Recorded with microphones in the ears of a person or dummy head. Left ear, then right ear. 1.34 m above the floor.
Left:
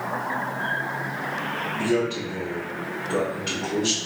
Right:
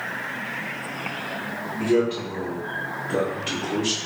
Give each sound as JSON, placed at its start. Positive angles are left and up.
{"t": 1.8, "sound": "a man speaking", "side_deg": 30, "distance_m": 0.9}